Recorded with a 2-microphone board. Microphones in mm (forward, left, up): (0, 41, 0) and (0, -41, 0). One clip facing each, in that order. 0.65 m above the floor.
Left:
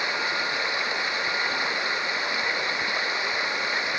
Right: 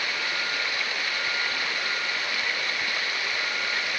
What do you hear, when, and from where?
0.0 s running water: 25° left (ahead or behind)